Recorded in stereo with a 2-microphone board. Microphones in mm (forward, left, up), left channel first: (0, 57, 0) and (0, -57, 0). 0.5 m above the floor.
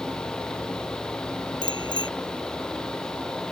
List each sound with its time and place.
1.6 s a bicycle bell: 40° left (ahead or behind)